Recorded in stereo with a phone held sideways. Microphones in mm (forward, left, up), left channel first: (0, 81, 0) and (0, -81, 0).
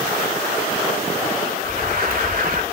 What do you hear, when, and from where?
1.6 s an alarm: 65° right (ahead or behind), 2.5 m